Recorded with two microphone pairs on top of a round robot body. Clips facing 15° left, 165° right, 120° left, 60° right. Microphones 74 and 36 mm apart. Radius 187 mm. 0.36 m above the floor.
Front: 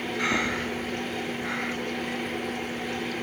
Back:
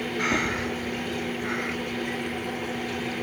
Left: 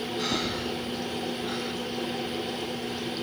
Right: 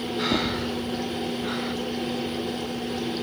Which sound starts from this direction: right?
Breathing, at 0.2 s.